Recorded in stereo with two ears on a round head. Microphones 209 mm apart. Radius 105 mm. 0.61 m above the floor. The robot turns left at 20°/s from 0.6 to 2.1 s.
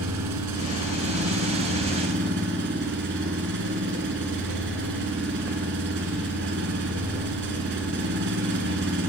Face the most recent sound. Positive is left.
turn(degrees=-125)